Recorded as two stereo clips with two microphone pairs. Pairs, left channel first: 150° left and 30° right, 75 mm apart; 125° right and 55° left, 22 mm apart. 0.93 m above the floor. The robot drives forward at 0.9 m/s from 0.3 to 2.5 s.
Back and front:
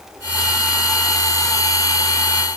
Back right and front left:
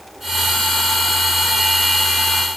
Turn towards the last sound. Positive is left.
No sound to turn to.